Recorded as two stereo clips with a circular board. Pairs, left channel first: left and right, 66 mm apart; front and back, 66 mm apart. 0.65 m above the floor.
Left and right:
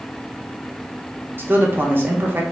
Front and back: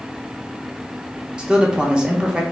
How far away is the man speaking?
About 0.7 m.